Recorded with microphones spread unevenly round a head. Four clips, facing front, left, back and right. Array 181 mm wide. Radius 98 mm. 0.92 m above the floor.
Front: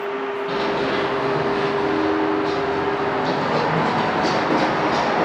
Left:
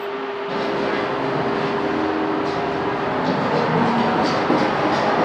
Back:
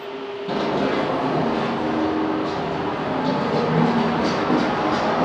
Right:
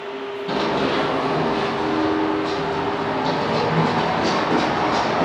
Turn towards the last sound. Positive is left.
turn(degrees=115)